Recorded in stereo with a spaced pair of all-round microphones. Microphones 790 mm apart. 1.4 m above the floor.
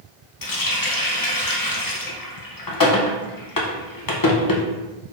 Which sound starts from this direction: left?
A running tap, at 0.4 s.